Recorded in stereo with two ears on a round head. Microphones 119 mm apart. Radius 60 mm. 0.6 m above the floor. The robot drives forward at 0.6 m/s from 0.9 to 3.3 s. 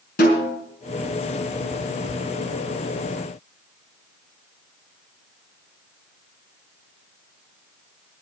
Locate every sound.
0.2 s a snare drum: 70° left (ahead or behind), 5 m